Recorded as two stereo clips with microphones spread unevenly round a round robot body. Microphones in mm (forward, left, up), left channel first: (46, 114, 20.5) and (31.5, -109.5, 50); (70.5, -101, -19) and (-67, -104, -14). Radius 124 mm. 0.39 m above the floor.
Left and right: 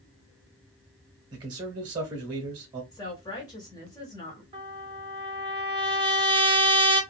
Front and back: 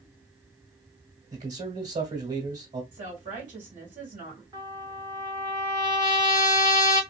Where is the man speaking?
165° right, 1.4 m.